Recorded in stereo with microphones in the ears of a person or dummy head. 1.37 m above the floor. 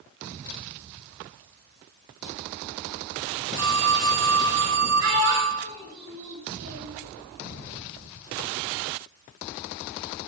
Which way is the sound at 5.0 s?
80° right.